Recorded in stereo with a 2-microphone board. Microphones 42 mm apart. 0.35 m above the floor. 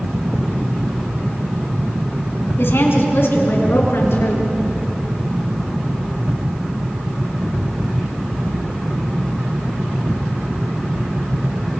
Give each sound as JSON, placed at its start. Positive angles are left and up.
{"t": 2.6, "sound": "a woman speaking", "side_deg": 65, "distance_m": 3.5}